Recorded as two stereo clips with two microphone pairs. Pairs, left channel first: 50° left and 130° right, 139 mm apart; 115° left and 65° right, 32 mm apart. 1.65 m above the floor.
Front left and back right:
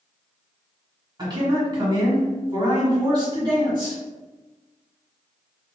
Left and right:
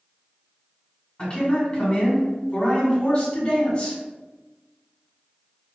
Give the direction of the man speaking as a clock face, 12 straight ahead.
6 o'clock.